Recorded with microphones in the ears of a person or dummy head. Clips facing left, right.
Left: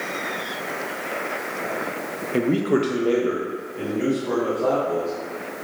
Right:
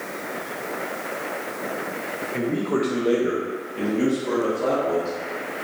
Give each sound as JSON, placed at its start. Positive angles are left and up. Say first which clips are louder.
{"t": 2.3, "sound": "a man speaking", "louder": "left 4 dB", "side_deg": 60, "distance_m": 0.6}